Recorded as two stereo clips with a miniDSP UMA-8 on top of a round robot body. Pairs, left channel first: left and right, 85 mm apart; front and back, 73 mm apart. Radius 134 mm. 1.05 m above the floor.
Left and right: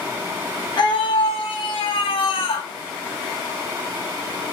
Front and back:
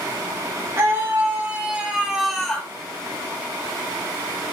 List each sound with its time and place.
0.8 s a scream: 120° left, 3 m; by 2.7 s 80° left, 2.5 m